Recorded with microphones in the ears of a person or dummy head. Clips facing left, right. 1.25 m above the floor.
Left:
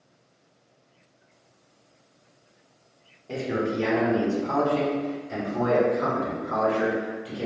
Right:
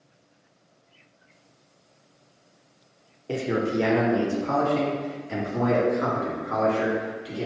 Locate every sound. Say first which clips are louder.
3.3 s a man speaking: right 2 dB; 40° right (ahead or behind), 0.6 m; by 7.5 s 65° right (ahead or behind), 3.5 m